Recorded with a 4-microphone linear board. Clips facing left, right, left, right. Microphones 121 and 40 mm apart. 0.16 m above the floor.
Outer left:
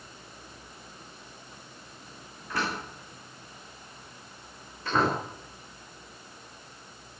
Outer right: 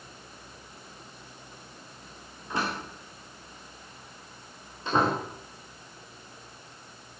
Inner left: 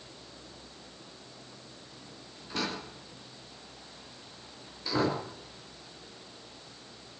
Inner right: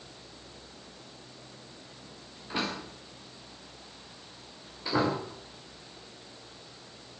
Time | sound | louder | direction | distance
2.5 | a door slam | outer right 1 dB, inner right 2 dB | 20° right (ahead or behind) | 9.5 m